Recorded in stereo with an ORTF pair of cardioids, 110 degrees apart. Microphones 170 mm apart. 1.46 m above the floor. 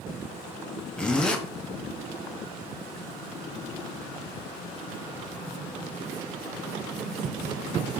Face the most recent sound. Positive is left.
turn(degrees=5)